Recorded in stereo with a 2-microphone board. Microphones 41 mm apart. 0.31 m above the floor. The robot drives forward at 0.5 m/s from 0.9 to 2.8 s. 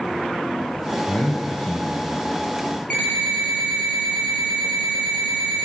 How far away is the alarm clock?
About 4.5 m.